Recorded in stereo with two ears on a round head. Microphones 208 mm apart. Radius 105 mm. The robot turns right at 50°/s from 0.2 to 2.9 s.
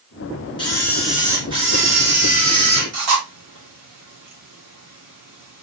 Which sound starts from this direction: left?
A camera shutter, at 0.6 s.